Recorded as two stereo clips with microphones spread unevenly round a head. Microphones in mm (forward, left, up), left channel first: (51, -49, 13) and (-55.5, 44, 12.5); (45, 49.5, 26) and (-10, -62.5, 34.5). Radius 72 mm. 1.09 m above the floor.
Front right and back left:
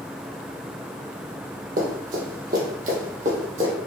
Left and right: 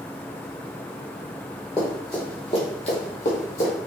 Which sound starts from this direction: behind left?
Running footsteps, at 1.8 s.